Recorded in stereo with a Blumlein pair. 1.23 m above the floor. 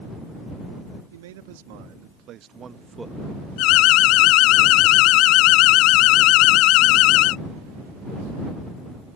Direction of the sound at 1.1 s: 55° right.